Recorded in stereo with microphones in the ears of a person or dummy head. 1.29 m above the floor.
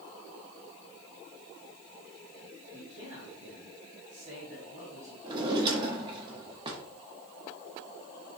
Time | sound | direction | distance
2.7 | a man speaking | 40° right (ahead or behind) | 3 m
5.2 | a drawer | 30° right (ahead or behind) | 1.0 m